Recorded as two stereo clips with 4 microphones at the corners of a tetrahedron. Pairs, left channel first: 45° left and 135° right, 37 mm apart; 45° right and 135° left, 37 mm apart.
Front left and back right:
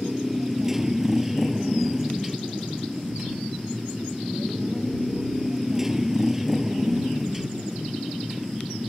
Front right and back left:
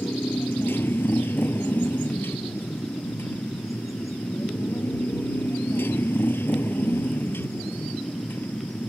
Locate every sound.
0.0 s a motorcycle: 55° right